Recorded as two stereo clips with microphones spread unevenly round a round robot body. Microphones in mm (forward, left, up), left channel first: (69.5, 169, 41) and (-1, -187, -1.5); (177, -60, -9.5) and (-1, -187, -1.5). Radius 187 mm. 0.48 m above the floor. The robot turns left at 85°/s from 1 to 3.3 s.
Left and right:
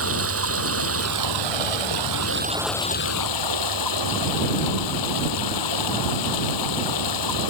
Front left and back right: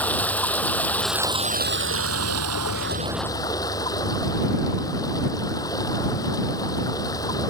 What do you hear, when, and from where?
0.0 s running water: 50° right; by 7.5 s 115° left